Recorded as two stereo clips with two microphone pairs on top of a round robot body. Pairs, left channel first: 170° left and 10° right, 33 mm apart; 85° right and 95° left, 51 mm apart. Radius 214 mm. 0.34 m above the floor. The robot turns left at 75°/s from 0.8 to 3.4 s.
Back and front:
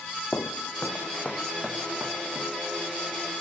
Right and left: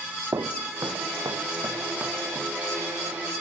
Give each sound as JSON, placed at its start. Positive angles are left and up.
{"t": 0.3, "sound": "footsteps", "azimuth_deg": 130}